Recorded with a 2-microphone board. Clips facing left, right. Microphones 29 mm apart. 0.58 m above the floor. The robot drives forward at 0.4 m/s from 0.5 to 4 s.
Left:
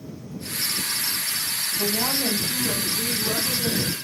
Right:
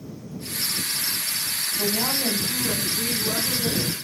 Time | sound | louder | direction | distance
1.8 | a woman speaking | even | 35° left (ahead or behind) | 3 m